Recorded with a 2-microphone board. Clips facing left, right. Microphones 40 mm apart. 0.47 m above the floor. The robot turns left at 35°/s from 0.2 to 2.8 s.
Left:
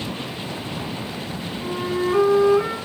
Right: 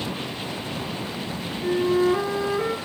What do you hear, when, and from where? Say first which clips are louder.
1.6 s a flute: right 4 dB; 85° left, 4 m; by 2.8 s 45° left, 4 m